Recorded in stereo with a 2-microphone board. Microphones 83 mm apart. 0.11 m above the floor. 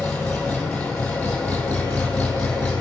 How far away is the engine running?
About 1.6 m.